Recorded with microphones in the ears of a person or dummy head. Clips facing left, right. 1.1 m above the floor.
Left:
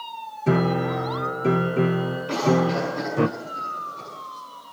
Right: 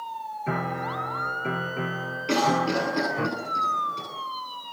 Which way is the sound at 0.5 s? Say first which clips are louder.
Left 10 dB; 45° left (ahead or behind).